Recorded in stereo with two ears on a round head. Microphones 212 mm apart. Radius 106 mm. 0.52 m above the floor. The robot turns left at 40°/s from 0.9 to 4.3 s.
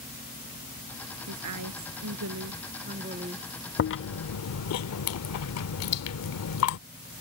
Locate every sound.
1.3 s a woman speaking: 75° right; by 3.5 s 165° right
3.8 s chewing: 45° left (ahead or behind); by 6.8 s 65° left (ahead or behind)